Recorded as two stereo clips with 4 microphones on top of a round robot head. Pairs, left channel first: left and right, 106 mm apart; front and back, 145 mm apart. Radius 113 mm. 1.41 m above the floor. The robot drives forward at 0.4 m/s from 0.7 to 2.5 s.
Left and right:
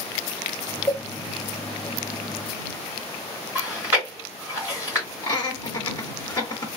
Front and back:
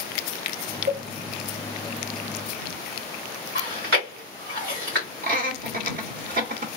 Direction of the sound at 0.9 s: Straight behind.